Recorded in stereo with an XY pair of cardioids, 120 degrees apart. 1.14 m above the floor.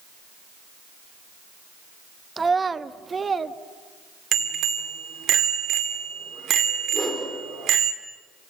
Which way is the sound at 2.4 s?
20° right.